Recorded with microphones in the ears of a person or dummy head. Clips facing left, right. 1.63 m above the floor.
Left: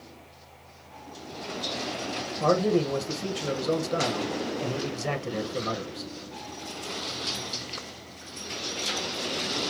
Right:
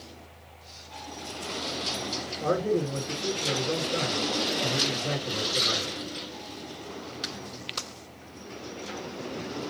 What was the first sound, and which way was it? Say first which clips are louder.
A man speaking: left 3 dB; 80° left.